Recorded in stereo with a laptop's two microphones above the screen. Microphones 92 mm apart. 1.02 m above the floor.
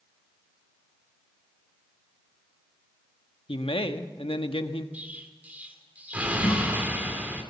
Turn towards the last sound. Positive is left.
turn(degrees=50)  # may be behind; listen again after turning